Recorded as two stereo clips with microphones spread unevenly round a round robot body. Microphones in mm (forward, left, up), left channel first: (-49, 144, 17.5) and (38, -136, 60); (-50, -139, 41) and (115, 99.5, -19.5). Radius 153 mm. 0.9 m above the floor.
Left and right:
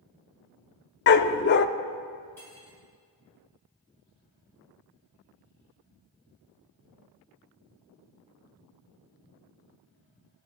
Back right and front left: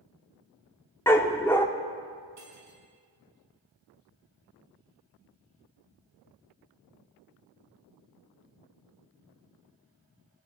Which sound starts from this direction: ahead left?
Cutlery clinking, at 2.4 s.